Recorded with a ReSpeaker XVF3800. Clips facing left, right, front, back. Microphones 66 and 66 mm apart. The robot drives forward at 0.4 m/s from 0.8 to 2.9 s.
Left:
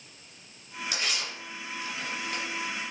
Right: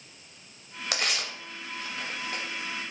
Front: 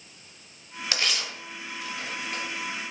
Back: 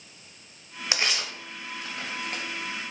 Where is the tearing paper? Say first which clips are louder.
Right 3 dB, back 1 dB; 110° right, 0.5 m; by 2.4 s 150° right, 0.9 m.